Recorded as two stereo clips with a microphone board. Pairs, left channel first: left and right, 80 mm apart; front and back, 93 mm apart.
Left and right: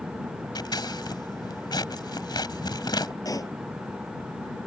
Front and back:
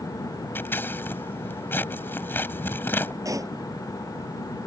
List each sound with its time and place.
0.6 s scissors: 65° left
3.2 s a pop: 130° left